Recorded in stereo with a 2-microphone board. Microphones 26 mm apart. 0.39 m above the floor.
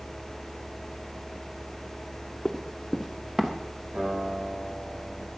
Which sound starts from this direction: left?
Running footsteps, at 2.5 s.